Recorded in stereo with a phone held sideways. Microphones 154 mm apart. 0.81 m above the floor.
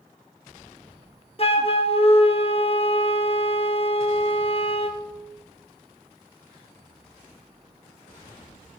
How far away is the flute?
About 0.9 m.